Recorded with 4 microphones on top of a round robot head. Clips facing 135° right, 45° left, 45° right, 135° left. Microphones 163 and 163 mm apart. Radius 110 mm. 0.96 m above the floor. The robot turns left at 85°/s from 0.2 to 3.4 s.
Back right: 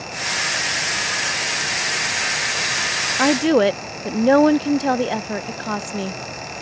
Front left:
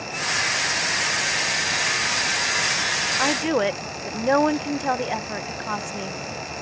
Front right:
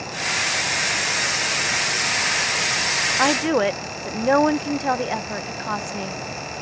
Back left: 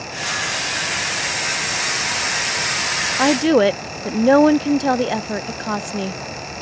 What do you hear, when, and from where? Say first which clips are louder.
3.2 s a woman speaking: back right 7 dB, back left 6 dB; 160° right; by 6.6 s straight behind